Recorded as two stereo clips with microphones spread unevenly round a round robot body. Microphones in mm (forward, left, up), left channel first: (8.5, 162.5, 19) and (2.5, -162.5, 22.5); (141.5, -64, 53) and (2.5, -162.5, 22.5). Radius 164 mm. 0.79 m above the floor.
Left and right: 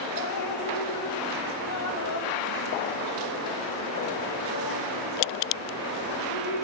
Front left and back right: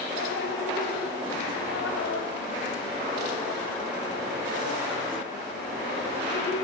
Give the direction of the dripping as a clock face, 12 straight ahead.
10 o'clock.